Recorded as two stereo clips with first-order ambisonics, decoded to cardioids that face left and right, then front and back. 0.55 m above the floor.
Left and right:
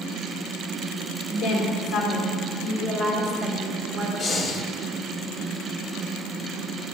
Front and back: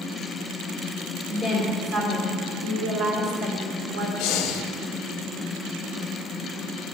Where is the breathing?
25° left, 0.6 m.